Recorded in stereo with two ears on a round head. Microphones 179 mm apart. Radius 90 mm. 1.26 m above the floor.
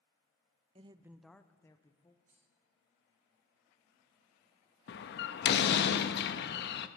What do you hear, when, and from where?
0.8 s a woman speaking: 30° right (ahead or behind), 0.5 m; by 2.1 s 20° left (ahead or behind), 1.2 m
2.2 s cutlery clinking: 40° right (ahead or behind), 7 m
4.9 s a door slam: 55° left (ahead or behind), 0.8 m